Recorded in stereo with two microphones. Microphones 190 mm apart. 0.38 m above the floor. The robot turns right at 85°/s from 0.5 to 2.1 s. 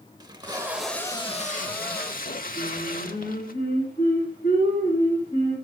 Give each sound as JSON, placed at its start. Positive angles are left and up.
{"t": 0.2, "sound": "tape being pulled", "azimuth_deg": -30, "distance_m": 0.8}
{"t": 2.5, "sound": "singing", "side_deg": 55, "distance_m": 8.0}